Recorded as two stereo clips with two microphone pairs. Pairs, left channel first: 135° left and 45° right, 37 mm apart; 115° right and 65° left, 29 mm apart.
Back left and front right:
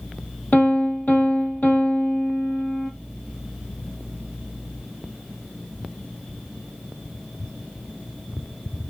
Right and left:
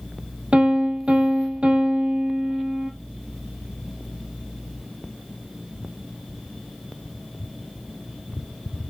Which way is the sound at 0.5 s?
100° left.